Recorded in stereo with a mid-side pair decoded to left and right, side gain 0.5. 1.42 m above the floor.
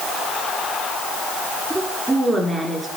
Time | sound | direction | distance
1.7 | a woman speaking | 10° right | 4 m